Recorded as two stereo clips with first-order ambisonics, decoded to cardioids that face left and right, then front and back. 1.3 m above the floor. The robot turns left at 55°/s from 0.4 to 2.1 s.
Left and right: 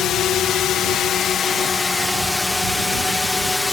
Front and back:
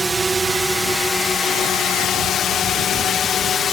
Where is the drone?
110° left; by 3.7 s 25° left.